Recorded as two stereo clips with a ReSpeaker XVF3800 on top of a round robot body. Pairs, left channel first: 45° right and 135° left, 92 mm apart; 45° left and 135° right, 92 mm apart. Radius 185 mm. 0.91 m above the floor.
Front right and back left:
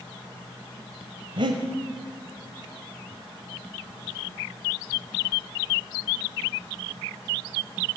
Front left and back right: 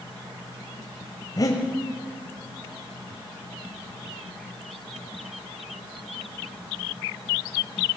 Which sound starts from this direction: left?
Breathing, at 1.4 s.